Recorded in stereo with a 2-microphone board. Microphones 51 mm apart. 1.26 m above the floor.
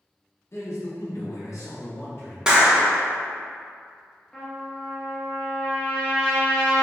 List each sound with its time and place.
0.5 s a man speaking: 55° left (ahead or behind), 0.8 m
2.5 s a clap: 15° right (ahead or behind), 0.6 m
4.3 s a trumpet: 10° left (ahead or behind), 0.7 m